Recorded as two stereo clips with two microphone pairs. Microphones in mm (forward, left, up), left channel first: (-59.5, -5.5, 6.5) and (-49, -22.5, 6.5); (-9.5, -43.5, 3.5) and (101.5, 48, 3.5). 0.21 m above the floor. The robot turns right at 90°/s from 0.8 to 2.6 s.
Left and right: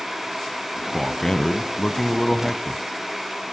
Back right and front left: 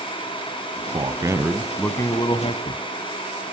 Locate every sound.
0.9 s a man speaking: 60° left, 1.3 m; by 2.8 s 150° right, 1.3 m